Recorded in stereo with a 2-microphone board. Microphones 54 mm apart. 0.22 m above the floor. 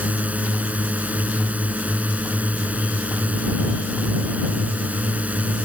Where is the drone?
30° right (ahead or behind).